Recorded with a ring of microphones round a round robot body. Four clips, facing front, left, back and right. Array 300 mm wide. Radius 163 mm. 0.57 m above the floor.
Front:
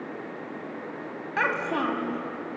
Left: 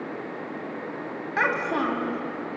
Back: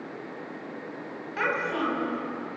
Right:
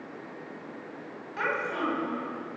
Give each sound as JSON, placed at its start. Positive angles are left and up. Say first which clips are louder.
{"t": 1.4, "sound": "a child speaking", "louder": "left 5 dB, front 1 dB", "azimuth_deg": 55, "distance_m": 3.0}